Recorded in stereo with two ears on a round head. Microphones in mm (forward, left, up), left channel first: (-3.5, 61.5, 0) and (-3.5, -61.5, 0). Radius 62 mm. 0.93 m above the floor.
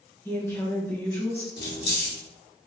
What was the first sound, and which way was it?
A woman speaking, 15° left (ahead or behind).